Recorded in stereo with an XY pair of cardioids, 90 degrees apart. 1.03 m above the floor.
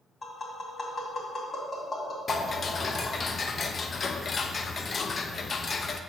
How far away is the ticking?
About 0.6 m.